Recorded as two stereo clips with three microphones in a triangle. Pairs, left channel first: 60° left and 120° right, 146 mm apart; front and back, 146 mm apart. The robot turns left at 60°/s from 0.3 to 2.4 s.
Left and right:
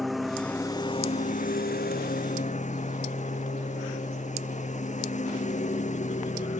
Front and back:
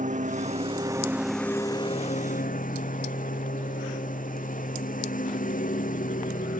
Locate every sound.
0.0 s a lawn mower: 150° left; by 6.6 s 25° left